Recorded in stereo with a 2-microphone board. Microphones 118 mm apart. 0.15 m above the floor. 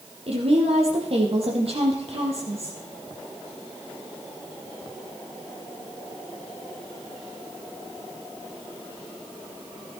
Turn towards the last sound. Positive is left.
turn(degrees=-55)  # may be behind; listen again after turning